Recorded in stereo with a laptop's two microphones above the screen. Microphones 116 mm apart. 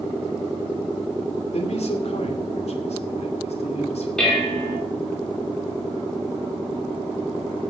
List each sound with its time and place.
1.5 s a man speaking: 65° left (ahead or behind), 2.5 m
4.2 s dishes clattering: 5° left (ahead or behind), 2.0 m